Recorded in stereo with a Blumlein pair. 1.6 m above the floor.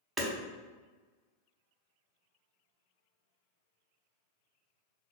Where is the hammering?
15° right, 0.8 m.